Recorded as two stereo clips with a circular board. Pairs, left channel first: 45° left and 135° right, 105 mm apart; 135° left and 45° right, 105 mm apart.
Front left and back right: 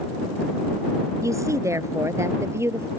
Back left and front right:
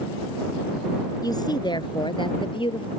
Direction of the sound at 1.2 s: 175° left.